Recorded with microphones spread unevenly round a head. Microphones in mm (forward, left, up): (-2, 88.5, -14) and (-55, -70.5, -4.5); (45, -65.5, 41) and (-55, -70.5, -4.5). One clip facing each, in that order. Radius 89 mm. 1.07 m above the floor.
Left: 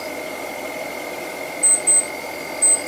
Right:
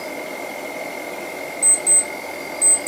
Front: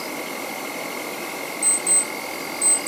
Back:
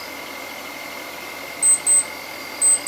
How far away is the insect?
About 1.0 m.